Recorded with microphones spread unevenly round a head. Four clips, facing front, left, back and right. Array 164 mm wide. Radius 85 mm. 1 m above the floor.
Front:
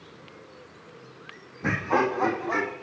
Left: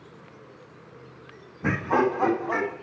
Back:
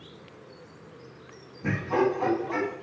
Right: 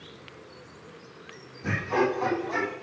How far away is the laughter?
About 1.7 m.